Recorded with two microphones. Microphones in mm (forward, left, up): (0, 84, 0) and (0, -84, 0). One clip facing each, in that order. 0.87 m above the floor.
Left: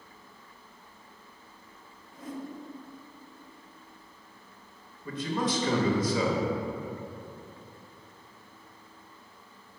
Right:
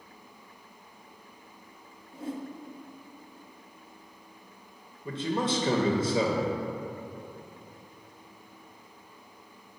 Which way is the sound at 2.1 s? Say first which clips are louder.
Right 3 dB; 30° right (ahead or behind).